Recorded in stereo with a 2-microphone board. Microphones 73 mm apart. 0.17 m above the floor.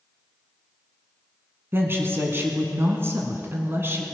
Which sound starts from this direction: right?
A woman speaking, at 1.7 s.